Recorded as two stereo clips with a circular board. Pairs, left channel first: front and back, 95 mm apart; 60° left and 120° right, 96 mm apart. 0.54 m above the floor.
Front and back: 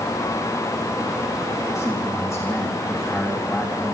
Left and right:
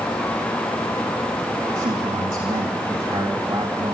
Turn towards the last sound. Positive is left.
turn(degrees=-90)